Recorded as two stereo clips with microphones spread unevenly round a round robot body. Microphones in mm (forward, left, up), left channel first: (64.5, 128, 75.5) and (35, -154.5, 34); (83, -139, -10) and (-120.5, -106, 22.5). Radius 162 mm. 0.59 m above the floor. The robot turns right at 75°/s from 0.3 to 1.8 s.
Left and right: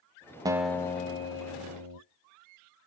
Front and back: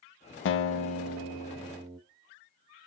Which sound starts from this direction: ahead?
A guitar, at 0.5 s.